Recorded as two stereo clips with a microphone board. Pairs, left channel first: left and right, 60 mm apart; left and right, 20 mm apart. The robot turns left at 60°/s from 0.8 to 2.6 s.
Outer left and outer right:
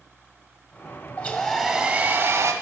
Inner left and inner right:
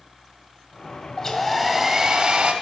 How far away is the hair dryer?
About 1.6 m.